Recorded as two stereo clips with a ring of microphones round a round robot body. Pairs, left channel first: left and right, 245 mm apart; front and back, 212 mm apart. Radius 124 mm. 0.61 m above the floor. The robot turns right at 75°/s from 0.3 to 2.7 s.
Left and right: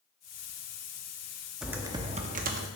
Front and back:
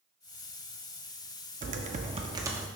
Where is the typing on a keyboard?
Straight behind, 0.6 m; by 2.7 s 100° right, 0.6 m.